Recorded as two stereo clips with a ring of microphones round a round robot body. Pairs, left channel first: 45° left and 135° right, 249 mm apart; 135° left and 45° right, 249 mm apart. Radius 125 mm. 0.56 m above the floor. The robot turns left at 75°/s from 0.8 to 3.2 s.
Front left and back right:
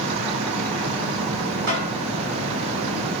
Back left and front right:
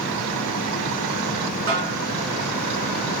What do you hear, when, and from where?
1.7 s a snare drum: 100° right, 2 m; by 1.9 s 120° right, 2 m